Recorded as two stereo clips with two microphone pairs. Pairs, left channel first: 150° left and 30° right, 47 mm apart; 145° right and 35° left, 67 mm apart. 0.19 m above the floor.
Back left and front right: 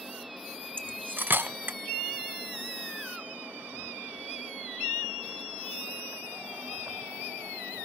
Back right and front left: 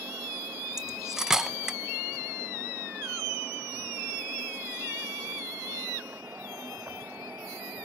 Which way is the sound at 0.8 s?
45° right.